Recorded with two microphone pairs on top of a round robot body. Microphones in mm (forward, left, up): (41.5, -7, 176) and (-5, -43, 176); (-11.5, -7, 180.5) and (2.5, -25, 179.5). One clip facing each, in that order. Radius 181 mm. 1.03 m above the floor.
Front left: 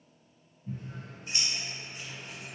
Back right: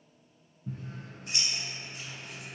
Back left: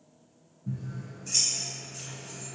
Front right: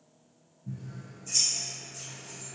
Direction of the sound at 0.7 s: Straight behind.